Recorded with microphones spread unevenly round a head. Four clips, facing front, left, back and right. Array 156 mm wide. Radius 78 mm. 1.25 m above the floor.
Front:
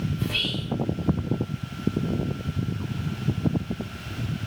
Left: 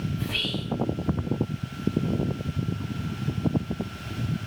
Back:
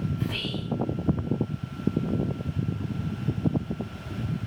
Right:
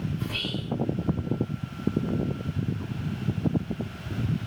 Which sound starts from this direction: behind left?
Whispering, at 0.2 s.